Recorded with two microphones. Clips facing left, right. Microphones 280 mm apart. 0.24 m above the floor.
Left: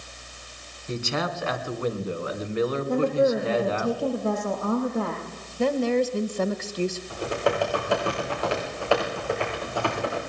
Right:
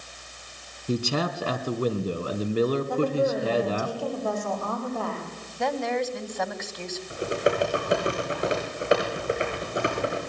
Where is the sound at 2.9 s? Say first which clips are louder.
Left 2 dB; 25° left (ahead or behind), 8.5 m.